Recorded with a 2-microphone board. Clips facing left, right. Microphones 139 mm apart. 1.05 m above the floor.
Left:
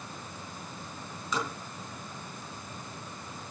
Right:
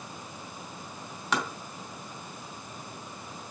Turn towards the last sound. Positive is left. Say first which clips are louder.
# right 2 dB
turn(degrees=-80)